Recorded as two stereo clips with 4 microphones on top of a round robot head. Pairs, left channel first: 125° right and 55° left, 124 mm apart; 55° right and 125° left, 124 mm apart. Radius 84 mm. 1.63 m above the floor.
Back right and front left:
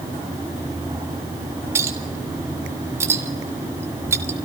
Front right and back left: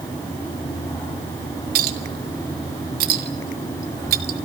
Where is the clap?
No clap in this recording.